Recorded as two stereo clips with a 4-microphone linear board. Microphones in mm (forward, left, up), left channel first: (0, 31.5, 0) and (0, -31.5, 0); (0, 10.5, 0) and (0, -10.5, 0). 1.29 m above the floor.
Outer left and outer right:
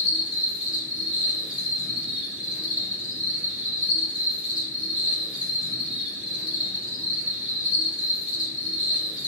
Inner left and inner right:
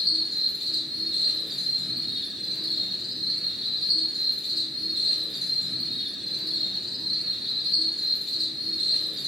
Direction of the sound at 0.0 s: 25° right (ahead or behind).